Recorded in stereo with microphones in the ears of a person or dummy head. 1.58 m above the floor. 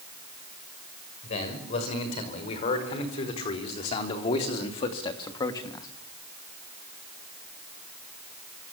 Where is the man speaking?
50° left (ahead or behind), 6.5 m; by 5.9 s 25° left (ahead or behind), 2.0 m.